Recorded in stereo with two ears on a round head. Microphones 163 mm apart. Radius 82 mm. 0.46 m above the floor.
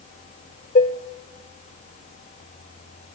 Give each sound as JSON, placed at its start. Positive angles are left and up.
{"t": 0.8, "sound": "dishes clattering", "side_deg": 45, "distance_m": 0.7}